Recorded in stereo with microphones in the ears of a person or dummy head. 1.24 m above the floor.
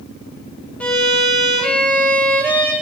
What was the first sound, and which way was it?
A violin, 5° left (ahead or behind).